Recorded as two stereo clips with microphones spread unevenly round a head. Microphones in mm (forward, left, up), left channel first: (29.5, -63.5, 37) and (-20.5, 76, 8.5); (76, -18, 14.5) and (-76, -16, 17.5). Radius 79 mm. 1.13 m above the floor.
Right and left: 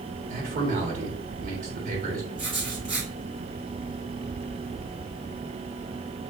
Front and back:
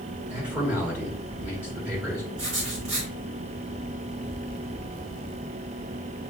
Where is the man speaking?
95° left, 1.3 m.